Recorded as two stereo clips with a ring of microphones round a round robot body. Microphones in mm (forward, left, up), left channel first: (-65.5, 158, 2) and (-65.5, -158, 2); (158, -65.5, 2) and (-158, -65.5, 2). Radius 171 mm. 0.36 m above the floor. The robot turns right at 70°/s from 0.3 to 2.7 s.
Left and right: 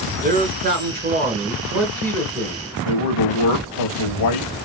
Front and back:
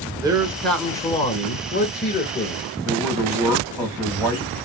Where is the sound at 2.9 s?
100° left, 2 m.